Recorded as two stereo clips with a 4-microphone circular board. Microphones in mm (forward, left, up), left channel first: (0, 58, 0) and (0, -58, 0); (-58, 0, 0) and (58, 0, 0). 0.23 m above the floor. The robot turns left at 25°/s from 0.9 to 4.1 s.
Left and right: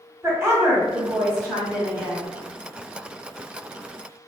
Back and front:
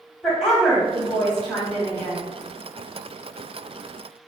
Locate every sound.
0.2 s a woman speaking: 95° right, 1.2 m; by 2.3 s 130° right, 1.2 m